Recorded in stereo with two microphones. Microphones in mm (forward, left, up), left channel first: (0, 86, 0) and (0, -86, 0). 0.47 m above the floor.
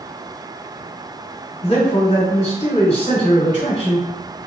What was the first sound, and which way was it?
A man speaking, 40° left (ahead or behind).